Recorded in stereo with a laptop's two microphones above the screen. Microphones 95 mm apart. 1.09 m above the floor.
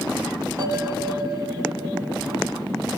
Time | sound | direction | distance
0.6 | a bell | 35° right (ahead or behind) | 1.5 m